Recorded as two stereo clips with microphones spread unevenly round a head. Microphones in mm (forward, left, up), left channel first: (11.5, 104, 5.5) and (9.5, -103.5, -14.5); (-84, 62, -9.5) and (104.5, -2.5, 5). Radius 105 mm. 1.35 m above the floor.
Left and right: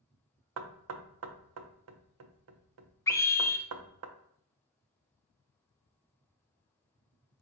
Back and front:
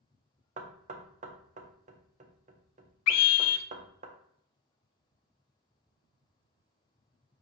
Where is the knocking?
80° right, 0.6 m.